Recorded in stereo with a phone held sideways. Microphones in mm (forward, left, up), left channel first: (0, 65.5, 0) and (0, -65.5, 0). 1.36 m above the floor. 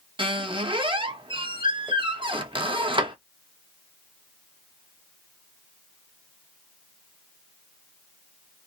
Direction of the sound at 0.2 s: 40° right (ahead or behind).